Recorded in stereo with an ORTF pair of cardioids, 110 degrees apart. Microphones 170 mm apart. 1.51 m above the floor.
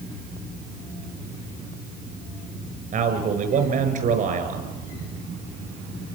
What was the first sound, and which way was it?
A man speaking, 50° right.